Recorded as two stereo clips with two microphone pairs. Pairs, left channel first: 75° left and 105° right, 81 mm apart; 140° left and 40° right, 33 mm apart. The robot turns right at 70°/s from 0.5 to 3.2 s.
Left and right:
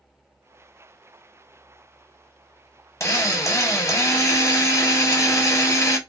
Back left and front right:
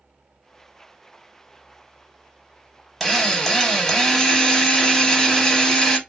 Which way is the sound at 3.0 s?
65° left.